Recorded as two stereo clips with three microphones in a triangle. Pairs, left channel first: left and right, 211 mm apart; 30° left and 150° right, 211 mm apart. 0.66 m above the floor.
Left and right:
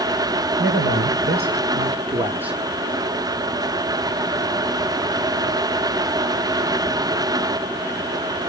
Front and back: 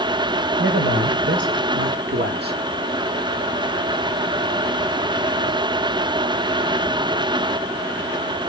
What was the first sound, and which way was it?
A man speaking, 120° right.